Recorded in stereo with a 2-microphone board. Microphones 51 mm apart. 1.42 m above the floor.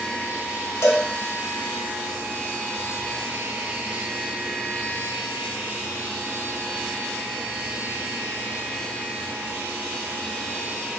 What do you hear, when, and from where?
0.8 s a cowbell: 65° left (ahead or behind), 0.8 m